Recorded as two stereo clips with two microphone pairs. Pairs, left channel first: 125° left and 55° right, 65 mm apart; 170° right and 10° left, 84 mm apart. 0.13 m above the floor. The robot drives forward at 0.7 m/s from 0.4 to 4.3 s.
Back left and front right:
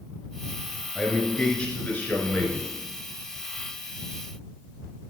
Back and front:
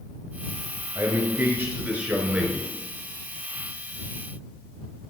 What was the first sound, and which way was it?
A man speaking, 50° left.